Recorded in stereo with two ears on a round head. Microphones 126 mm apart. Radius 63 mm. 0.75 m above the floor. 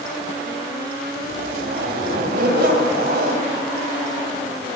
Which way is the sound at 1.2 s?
75° right (ahead or behind).